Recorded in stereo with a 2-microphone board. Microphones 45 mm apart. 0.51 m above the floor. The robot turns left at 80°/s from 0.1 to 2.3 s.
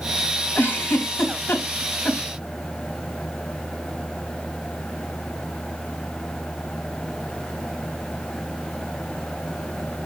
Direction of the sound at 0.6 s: 45° left (ahead or behind).